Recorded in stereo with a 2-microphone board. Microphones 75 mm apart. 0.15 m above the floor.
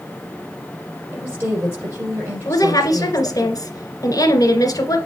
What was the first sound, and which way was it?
A woman speaking, 35° right (ahead or behind).